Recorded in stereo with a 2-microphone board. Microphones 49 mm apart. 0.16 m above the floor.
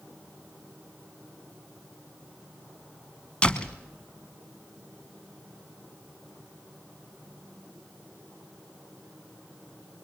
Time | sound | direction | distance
3.4 | a door slam | 20° left (ahead or behind) | 1.1 m